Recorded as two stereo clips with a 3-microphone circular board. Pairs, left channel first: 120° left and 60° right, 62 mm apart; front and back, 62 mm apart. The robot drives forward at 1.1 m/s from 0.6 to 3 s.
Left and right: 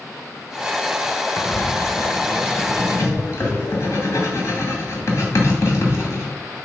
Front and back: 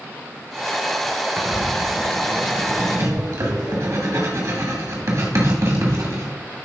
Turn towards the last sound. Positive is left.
turn(degrees=155)